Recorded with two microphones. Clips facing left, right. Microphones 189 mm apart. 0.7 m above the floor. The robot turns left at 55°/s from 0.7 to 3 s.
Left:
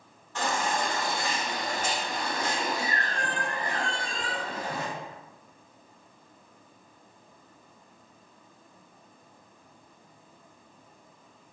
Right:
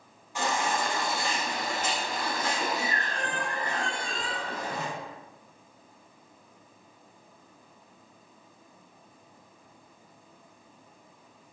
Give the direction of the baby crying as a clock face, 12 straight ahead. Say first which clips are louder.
Even; 6 o'clock.